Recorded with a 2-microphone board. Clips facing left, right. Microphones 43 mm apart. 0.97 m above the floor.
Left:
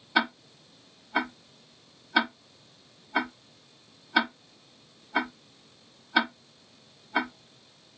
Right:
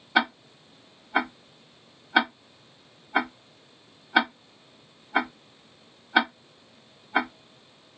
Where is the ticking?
15° right (ahead or behind), 0.5 m.